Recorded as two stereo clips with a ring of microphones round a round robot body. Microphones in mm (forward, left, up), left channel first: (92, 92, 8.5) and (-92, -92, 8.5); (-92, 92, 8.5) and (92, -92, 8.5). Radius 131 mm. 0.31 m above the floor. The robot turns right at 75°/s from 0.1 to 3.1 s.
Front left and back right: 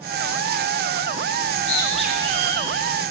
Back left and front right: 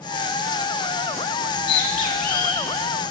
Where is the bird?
95° left, 1.0 m; by 3.1 s 140° right, 1.0 m.